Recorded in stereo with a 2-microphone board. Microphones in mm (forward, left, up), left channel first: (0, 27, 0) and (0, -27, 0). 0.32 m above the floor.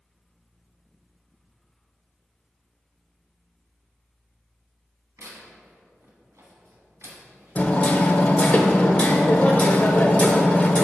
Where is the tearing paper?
70° right (ahead or behind), 1.4 m.